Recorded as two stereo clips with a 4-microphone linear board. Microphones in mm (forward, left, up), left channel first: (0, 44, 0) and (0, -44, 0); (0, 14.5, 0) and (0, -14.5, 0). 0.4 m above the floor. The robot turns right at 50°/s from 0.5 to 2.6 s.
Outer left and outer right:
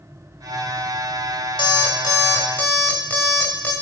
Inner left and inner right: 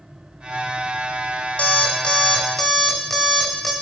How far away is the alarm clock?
About 0.8 m.